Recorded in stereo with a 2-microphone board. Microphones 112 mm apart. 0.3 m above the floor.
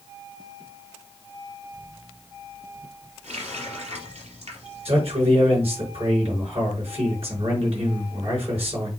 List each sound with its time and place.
3.2 s a running tap: 70° right (ahead or behind), 3.5 m
4.8 s a man speaking: 60° right (ahead or behind), 5 m